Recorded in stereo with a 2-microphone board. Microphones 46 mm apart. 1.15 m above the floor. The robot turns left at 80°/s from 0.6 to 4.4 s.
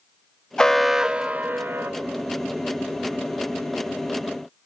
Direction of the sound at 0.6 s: 20° left.